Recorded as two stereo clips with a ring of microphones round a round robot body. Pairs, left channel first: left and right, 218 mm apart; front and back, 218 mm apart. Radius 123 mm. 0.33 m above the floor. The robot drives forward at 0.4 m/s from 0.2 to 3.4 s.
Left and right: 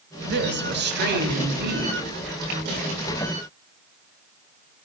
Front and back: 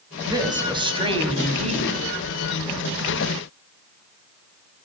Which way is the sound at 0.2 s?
110° right.